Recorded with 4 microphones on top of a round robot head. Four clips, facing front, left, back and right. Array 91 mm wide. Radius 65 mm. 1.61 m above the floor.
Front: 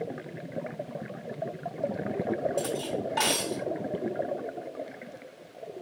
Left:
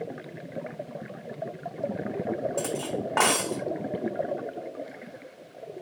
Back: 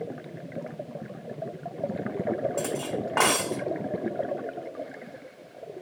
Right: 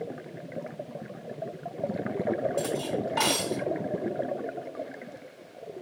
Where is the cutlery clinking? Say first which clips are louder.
Right 1 dB, back 1 dB; 135° left, 1.2 m.